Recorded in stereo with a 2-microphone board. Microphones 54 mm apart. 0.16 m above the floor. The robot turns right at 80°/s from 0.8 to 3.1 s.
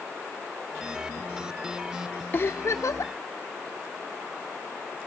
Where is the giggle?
35° left, 1.5 m; by 3.1 s 95° left, 1.5 m.